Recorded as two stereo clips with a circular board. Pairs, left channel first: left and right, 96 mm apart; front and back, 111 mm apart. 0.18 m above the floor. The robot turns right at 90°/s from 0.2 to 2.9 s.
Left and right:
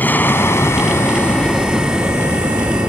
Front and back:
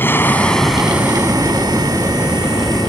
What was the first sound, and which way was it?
An aircraft, 45° left.